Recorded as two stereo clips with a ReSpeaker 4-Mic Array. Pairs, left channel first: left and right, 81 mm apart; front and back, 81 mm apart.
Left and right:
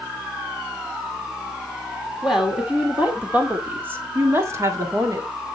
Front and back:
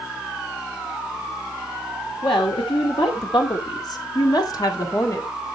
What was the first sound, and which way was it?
A woman speaking, 5° right.